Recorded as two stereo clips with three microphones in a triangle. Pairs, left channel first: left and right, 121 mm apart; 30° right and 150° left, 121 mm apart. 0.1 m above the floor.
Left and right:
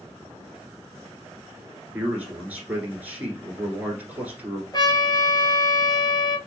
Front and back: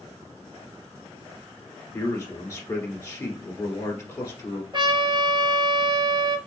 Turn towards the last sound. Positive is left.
turn(degrees=125)